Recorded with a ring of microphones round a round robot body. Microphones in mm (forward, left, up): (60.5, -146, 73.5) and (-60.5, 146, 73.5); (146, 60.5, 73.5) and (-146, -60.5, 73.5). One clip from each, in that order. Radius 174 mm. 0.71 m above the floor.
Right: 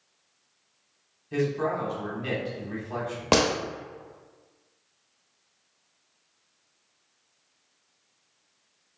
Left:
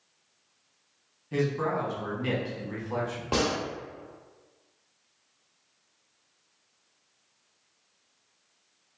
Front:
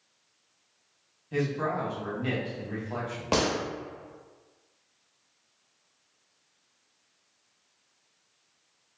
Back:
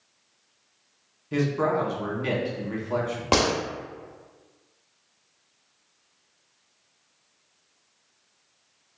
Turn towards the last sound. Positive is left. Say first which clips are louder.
# right 5 dB, back 4 dB
turn(degrees=-80)